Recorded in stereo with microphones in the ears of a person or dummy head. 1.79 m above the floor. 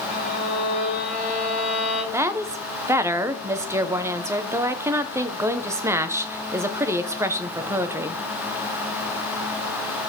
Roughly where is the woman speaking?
Centre.